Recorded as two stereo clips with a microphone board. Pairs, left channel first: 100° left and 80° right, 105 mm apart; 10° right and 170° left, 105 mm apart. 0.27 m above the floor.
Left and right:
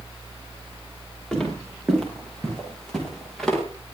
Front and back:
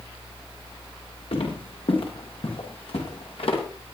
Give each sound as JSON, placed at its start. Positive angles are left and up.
{"t": 1.3, "sound": "footsteps", "azimuth_deg": 15, "distance_m": 9.5}